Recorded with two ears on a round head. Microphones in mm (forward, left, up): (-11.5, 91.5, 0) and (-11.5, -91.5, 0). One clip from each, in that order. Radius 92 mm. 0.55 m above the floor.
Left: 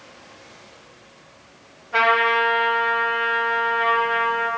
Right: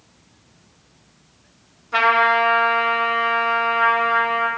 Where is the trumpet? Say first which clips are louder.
Right 2 dB; 45° right (ahead or behind), 2.5 m.